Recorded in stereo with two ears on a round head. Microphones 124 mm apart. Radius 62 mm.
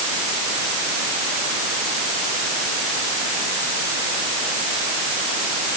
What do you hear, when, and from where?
Only background noise.